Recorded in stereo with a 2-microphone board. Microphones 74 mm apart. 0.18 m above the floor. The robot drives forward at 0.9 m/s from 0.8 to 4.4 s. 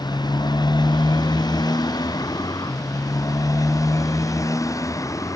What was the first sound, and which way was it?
A motorcycle, 70° left (ahead or behind).